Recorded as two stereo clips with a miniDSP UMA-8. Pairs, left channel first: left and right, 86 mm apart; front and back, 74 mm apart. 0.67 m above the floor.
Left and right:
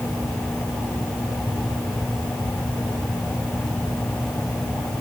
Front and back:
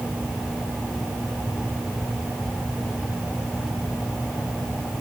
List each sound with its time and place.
Only background noise.